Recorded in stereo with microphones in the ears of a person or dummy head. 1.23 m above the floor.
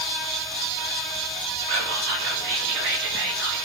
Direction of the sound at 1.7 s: 60° right (ahead or behind).